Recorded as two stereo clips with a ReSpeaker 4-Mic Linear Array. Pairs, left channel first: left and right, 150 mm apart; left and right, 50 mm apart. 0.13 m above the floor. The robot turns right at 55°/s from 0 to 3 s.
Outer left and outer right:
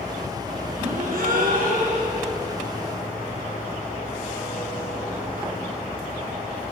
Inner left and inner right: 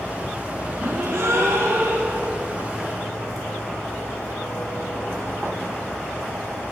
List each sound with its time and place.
0.8 s a gasp: 120° right, 2 m; by 2.3 s 40° right, 2 m